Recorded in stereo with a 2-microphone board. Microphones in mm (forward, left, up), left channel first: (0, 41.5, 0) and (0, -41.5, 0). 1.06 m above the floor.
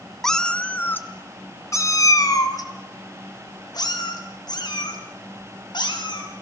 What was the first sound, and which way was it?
A cat meowing, 5° left (ahead or behind).